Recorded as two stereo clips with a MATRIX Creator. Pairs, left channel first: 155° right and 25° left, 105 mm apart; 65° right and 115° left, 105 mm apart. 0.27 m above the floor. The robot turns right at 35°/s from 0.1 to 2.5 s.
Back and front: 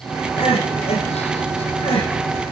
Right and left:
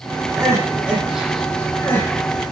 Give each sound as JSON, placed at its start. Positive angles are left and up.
{"t": 0.4, "sound": "crying", "azimuth_deg": 170, "distance_m": 7.5}